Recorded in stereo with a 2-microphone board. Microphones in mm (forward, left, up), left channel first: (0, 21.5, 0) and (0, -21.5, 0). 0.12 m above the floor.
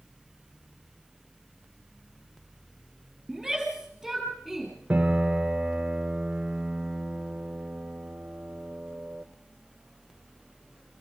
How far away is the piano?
About 1.2 m.